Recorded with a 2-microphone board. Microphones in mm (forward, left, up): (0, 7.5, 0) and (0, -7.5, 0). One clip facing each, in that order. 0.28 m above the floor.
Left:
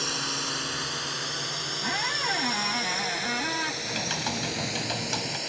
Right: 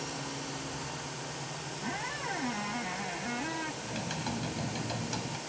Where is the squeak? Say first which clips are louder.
Left 8 dB; 40° left (ahead or behind).